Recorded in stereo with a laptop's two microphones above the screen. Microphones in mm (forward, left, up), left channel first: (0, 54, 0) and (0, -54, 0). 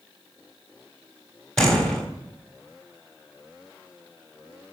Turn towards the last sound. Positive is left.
turn(degrees=5)  # may be behind; listen again after turning